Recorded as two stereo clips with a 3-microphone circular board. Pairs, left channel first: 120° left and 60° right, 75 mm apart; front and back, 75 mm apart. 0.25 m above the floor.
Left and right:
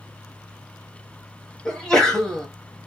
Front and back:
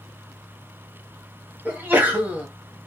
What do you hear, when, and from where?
1.6 s a sneeze: 170° right, 0.9 m